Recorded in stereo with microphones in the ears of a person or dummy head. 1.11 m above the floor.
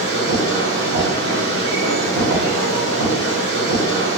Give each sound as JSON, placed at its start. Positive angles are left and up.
{"t": 0.0, "sound": "a machine running", "side_deg": -65, "distance_m": 1.2}